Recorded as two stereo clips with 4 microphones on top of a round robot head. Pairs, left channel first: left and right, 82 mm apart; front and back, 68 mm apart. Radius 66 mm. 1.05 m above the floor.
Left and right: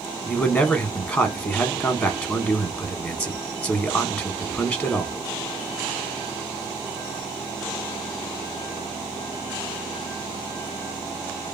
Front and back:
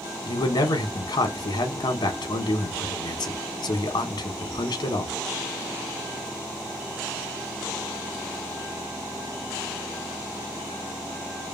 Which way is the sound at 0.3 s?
20° left.